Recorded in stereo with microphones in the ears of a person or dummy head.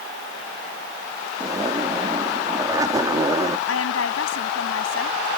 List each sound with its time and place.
1.4 s a zipper: 25° right (ahead or behind)
3.7 s a woman speaking: 85° left